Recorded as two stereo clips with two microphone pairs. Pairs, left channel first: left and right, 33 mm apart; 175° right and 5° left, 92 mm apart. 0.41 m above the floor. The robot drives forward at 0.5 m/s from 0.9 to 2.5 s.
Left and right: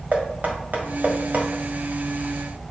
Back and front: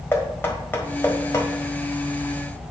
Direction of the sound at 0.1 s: 110° right.